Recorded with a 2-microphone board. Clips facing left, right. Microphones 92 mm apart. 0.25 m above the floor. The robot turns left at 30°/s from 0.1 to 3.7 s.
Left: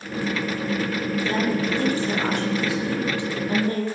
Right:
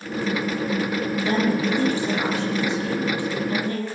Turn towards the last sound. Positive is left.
turn(degrees=145)